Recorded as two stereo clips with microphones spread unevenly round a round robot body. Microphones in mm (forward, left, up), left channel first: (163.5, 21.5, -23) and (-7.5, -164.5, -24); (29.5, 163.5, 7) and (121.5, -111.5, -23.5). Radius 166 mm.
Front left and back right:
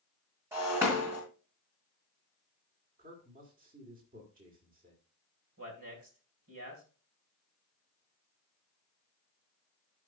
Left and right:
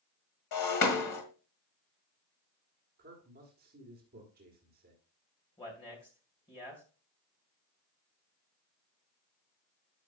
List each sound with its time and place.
0.5 s breaking glass: 145° left, 1.6 m
3.0 s a man speaking: 95° right, 1.7 m
5.6 s a man speaking: 175° right, 2 m